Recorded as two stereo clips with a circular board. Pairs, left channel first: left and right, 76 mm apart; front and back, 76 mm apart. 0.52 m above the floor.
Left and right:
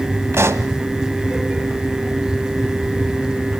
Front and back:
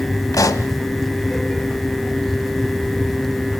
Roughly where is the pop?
Ahead right.